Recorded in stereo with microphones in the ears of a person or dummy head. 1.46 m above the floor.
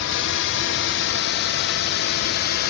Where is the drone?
65° left (ahead or behind); by 2.7 s 55° left (ahead or behind).